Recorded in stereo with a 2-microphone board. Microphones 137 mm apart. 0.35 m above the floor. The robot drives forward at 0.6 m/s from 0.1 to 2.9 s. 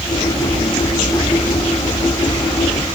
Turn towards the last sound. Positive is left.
No sound to turn to.